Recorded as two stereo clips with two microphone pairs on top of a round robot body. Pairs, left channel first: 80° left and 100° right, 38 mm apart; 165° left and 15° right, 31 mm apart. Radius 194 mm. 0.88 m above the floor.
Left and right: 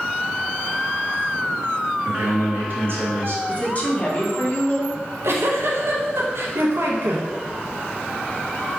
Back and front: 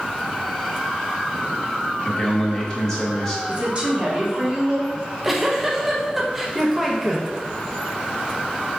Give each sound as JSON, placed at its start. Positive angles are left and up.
{"t": 2.0, "sound": "a man speaking", "azimuth_deg": -125, "distance_m": 1.3}
{"t": 3.5, "sound": "a woman speaking", "azimuth_deg": 35, "distance_m": 1.4}
{"t": 5.0, "sound": "a giggle", "azimuth_deg": -95, "distance_m": 0.7}